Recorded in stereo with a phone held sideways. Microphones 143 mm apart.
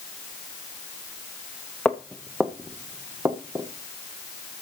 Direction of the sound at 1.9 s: 10° left (ahead or behind).